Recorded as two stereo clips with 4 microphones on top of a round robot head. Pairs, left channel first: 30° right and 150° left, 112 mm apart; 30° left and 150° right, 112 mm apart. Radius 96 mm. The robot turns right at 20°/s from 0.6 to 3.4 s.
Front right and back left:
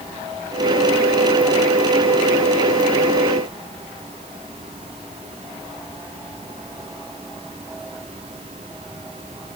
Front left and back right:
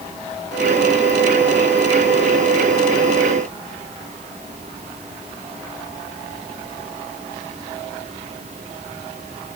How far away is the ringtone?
No ringtone in this recording.